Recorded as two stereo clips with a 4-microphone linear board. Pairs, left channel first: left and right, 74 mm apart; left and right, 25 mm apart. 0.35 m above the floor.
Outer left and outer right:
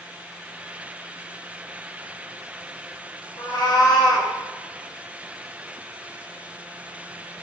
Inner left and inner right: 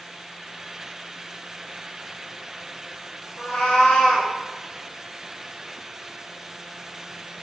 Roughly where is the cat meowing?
Left.